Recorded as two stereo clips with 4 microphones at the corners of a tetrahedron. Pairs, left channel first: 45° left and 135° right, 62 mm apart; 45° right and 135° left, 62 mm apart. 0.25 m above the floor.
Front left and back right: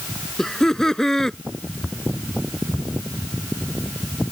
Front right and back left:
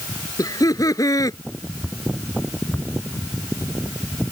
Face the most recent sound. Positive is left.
turn(degrees=-35)